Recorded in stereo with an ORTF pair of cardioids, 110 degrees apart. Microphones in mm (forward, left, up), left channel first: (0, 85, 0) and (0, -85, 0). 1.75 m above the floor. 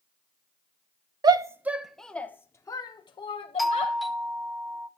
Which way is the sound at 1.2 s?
25° right.